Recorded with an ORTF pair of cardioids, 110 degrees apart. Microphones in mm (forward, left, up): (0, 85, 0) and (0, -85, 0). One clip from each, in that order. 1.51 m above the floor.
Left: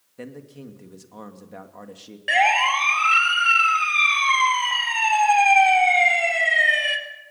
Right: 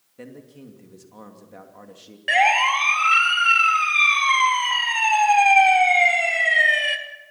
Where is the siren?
5° right, 2.5 m.